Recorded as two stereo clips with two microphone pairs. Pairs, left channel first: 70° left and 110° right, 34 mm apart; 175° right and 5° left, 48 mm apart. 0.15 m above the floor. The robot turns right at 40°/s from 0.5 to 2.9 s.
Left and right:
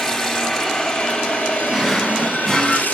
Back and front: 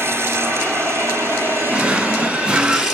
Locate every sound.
0.0 s running water: 15° right, 2 m; by 3.0 s 80° left, 2 m
1.7 s a drawer: 10° right, 0.8 m; by 2.9 s 35° left, 0.8 m